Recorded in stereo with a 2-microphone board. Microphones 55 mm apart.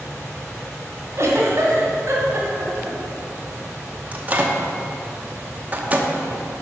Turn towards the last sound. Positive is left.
turn(degrees=-30)  # may be behind; listen again after turning